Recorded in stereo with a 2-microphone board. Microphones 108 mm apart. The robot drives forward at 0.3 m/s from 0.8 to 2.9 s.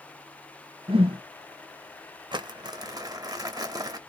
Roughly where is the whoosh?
Right.